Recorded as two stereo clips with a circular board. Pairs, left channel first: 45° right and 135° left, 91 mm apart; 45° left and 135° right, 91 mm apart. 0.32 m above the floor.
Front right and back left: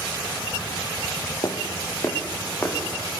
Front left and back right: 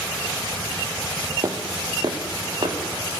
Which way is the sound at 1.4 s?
90° right.